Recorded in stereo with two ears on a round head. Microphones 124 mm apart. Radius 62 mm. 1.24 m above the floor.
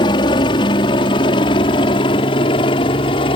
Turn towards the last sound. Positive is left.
turn(degrees=40)  # may be behind; listen again after turning